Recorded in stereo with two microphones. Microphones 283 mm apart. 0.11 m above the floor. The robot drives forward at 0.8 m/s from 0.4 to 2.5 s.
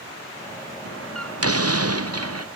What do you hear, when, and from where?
0.8 s a door slam: 55° right (ahead or behind); by 2.5 s 60° right (ahead or behind)